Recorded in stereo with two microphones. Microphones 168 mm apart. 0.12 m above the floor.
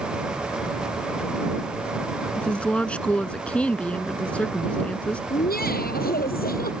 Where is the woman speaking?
5° left (ahead or behind).